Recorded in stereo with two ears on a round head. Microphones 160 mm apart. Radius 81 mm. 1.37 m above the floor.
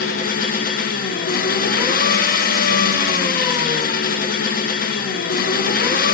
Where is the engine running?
50° left (ahead or behind), 0.9 m.